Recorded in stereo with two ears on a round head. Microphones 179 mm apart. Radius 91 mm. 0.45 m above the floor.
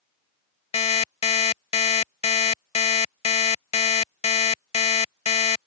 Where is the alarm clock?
30° left (ahead or behind).